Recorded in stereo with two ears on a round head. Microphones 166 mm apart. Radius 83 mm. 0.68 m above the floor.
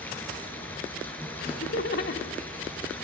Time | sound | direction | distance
0.0 | running water | 10° left (ahead or behind) | 3.5 m
1.4 | laughter | 55° left (ahead or behind) | 1.8 m